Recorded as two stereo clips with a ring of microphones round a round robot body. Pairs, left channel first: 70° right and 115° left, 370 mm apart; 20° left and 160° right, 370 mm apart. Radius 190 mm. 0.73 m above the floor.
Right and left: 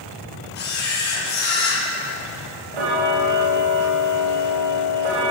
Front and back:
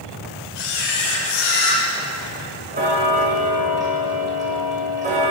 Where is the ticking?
130° left, 10 m.